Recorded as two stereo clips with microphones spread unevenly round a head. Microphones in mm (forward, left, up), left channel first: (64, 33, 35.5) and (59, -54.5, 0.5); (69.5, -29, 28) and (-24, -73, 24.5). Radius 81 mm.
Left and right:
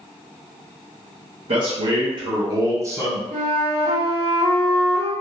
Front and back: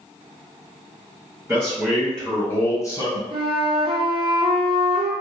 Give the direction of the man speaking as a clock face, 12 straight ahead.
3 o'clock.